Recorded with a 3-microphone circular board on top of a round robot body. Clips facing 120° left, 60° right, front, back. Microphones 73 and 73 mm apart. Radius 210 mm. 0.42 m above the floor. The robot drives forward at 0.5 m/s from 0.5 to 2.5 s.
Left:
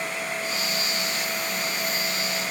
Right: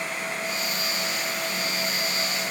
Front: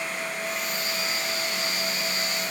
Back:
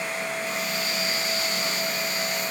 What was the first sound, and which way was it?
Only background noise.